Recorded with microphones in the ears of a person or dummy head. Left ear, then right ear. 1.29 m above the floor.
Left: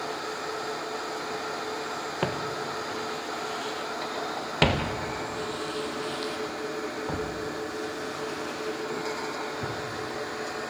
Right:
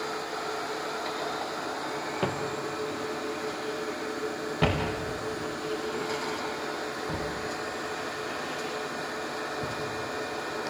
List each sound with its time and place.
2.2 s footsteps: 25° left (ahead or behind), 1.8 m; by 9.8 s 65° left (ahead or behind), 4 m